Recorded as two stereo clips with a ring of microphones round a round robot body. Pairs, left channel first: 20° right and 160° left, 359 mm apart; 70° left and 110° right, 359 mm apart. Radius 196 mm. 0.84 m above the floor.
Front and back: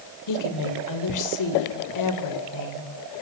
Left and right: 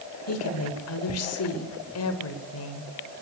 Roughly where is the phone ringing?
No phone ringing in this recording.